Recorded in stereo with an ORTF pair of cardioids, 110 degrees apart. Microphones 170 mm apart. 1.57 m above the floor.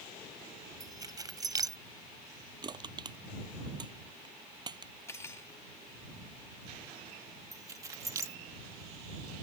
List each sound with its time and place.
0.8 s keys jangling: 20° right
2.6 s crushing: 25° right
5.1 s cutlery clinking: 15° left
7.5 s keys jangling: 20° right